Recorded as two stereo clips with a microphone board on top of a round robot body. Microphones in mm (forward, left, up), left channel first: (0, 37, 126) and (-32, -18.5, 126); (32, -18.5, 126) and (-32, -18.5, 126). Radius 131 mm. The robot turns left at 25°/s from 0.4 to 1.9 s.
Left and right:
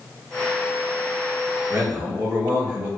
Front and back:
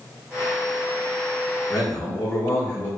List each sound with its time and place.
1.7 s a man speaking: 45° right, 1.5 m; by 2.9 s 50° right, 1.5 m